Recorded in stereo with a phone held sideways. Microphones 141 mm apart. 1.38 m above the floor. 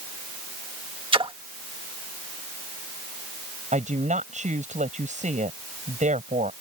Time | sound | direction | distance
1.1 | a splash | 40° right (ahead or behind) | ?
3.7 | a woman speaking | 60° right (ahead or behind) | ?